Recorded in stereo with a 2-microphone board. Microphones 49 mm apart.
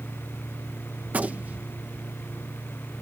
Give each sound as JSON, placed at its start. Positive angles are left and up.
{"t": 1.1, "sound": "a gunshot", "side_deg": -35}